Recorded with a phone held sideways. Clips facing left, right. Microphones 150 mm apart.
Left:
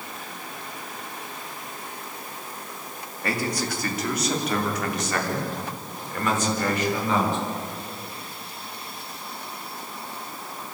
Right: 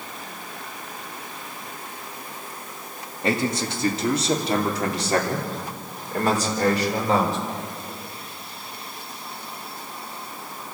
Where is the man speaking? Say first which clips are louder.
Right 4 dB; 25° right (ahead or behind), 2.5 m; by 7.4 s 40° right (ahead or behind), 4.5 m.